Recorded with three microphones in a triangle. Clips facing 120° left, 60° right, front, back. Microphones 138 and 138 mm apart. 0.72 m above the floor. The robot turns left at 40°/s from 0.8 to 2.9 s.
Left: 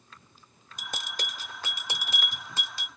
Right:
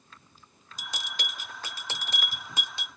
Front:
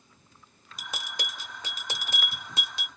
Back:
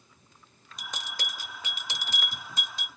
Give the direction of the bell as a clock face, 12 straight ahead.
9 o'clock.